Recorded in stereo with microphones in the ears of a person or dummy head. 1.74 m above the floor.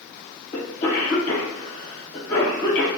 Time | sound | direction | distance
0.5 | a cough | 35° left (ahead or behind) | 1.3 m